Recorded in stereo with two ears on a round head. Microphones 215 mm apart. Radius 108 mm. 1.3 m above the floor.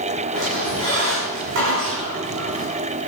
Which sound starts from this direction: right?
A squeak, at 0.3 s.